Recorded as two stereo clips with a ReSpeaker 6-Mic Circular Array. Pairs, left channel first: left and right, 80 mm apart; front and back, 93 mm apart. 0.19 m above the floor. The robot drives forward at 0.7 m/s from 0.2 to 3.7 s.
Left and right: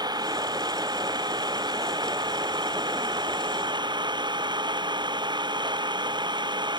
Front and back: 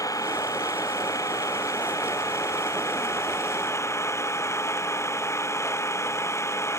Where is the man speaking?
I don't hear a man speaking.